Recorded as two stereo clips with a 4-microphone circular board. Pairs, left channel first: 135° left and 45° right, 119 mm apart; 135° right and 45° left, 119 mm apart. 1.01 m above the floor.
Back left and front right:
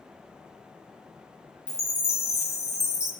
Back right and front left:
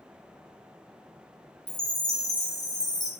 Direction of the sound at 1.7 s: 170° right.